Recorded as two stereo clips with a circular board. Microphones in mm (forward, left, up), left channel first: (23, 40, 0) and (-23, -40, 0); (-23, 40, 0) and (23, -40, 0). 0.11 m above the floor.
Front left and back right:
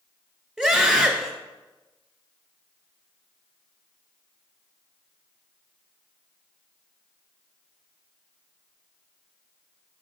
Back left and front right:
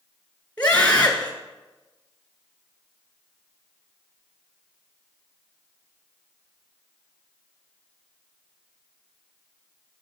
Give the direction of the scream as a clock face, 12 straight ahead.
6 o'clock.